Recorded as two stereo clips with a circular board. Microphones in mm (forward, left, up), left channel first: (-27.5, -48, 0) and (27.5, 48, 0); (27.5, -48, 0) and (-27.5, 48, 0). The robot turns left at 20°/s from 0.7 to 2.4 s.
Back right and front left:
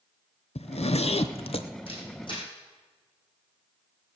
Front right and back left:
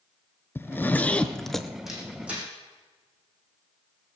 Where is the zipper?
130° right, 0.7 m; by 1.7 s 150° right, 0.7 m.